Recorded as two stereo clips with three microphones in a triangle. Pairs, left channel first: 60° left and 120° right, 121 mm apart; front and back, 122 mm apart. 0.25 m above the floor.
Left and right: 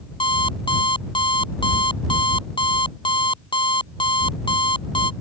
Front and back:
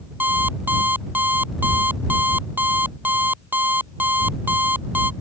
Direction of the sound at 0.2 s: 105° left.